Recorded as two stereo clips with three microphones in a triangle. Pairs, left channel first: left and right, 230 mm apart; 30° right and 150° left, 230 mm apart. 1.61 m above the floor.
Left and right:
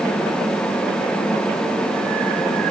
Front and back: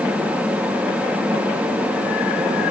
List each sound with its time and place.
Only background noise.